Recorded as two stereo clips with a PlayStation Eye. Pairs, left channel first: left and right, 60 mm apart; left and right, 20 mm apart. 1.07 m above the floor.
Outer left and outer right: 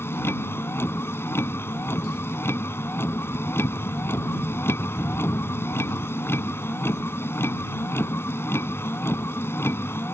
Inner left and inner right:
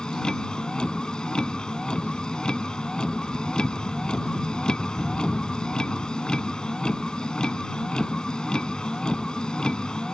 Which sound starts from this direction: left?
A vehicle, at 0.0 s.